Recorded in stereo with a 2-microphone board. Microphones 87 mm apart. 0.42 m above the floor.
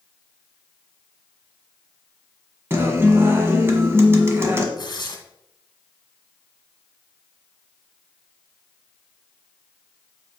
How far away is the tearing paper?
About 1.6 m.